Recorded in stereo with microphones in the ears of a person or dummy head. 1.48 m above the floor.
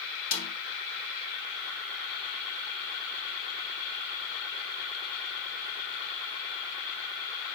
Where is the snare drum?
80° left, 3 m.